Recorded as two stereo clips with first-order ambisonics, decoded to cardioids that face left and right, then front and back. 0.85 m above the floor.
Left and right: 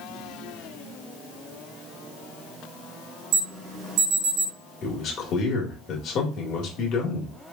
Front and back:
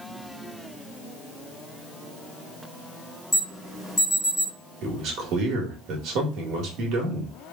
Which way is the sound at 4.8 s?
140° left.